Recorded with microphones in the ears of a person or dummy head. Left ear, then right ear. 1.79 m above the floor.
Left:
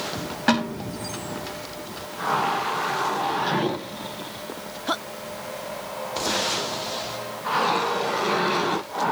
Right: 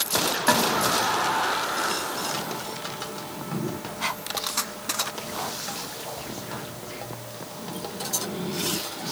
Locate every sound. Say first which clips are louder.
0.5 s a snare drum: right 1 dB; 25° right (ahead or behind), 6 m